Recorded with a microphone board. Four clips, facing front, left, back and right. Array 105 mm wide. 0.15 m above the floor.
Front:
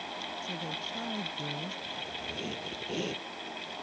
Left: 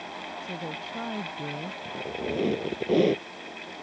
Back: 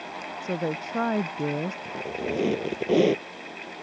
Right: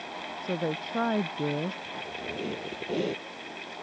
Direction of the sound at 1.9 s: 150° left.